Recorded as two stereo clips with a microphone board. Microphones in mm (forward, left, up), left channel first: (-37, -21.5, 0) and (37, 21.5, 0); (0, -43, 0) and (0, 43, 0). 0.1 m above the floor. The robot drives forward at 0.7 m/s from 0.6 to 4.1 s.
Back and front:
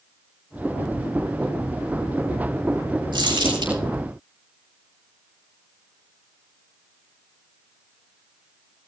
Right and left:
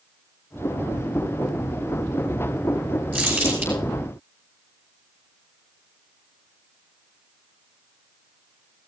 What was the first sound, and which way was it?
Crumpling, 20° left.